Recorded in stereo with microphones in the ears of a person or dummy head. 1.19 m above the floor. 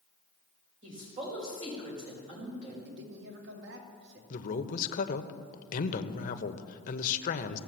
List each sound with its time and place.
0.8 s a woman speaking: 30° right (ahead or behind), 5 m
2.9 s a man speaking: 70° right (ahead or behind), 3 m
4.3 s a man speaking: 35° left (ahead or behind), 1.1 m